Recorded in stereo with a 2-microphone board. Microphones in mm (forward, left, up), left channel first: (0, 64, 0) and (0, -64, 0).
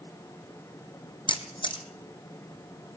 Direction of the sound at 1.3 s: 40° left (ahead or behind).